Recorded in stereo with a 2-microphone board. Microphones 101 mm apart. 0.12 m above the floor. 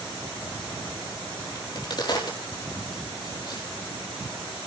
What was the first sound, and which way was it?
A crack, 45° left (ahead or behind).